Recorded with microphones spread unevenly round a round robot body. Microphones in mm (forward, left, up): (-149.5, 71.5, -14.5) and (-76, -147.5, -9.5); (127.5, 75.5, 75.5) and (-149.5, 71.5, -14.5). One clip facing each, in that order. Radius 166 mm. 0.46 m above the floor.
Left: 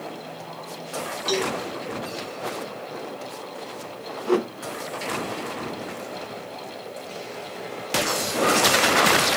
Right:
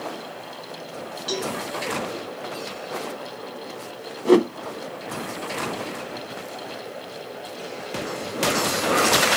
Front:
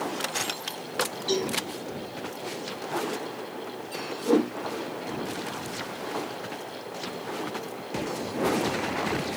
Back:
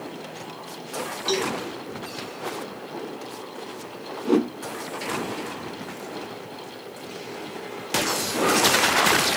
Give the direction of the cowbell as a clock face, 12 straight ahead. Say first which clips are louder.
Left 3 dB, back 2 dB; 6 o'clock.